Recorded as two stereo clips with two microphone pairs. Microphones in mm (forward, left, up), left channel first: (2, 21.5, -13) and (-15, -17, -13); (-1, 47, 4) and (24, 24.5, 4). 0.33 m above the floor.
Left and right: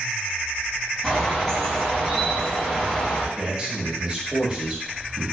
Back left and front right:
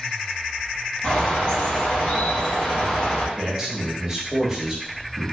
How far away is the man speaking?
About 0.9 m.